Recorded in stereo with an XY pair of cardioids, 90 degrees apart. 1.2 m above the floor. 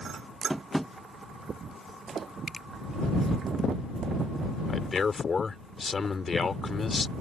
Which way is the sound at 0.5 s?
5° right.